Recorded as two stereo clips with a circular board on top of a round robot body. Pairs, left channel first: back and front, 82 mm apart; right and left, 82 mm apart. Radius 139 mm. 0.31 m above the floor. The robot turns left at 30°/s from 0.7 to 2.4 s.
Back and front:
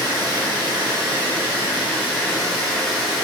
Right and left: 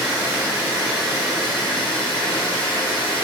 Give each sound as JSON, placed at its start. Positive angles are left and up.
{"t": 0.0, "sound": "running water", "azimuth_deg": -35, "distance_m": 1.6}